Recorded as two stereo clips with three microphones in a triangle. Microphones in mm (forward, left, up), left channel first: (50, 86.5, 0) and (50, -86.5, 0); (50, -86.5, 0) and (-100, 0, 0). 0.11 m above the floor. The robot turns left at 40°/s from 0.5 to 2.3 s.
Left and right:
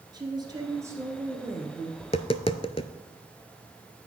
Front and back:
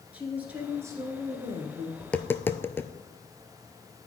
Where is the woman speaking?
135° right, 1.5 m; by 1.9 s 170° left, 1.5 m.